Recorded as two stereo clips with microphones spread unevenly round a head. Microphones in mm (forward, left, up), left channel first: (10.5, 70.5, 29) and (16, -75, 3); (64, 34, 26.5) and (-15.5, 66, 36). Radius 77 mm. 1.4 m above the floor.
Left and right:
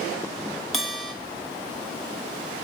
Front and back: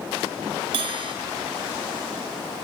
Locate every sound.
0.7 s a bell: 175° left, 1.0 m